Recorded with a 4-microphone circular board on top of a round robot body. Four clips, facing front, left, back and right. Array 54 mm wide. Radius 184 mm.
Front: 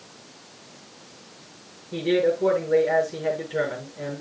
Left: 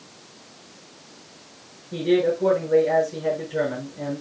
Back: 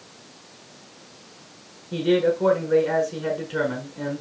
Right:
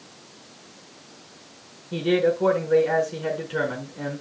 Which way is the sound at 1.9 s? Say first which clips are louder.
Left 1 dB, back 1 dB; 130° right.